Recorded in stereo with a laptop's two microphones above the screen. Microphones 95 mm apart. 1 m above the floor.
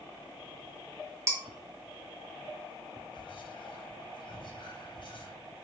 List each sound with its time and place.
1.3 s dishes clattering: 25° right (ahead or behind), 0.6 m
3.1 s whispering: 55° left (ahead or behind), 0.6 m